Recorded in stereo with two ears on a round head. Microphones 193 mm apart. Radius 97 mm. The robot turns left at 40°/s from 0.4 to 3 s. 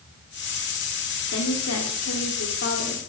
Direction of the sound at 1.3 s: 110° left.